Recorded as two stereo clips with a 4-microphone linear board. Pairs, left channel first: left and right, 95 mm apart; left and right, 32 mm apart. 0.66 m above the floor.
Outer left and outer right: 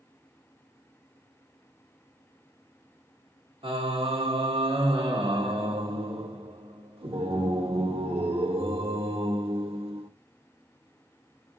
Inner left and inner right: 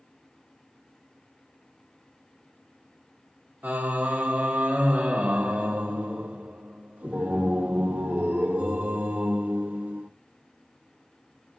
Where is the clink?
No clink in this recording.